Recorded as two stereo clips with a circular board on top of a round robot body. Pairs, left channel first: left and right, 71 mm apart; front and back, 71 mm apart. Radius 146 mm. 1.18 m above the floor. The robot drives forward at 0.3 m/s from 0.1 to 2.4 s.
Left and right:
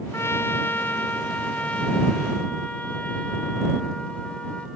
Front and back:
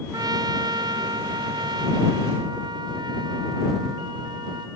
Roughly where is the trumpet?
Behind left.